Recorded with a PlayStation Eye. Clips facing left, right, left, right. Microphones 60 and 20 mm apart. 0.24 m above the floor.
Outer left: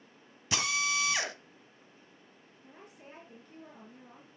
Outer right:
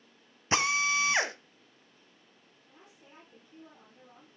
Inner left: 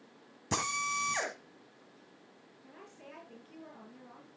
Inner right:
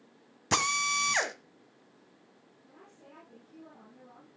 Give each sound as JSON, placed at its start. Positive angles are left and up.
{"t": 0.5, "sound": "a drill", "side_deg": -30, "distance_m": 1.6}
{"t": 2.6, "sound": "a woman speaking", "side_deg": 55, "distance_m": 5.0}